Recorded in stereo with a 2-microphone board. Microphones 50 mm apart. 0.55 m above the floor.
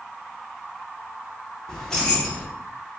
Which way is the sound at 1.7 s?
10° left (ahead or behind).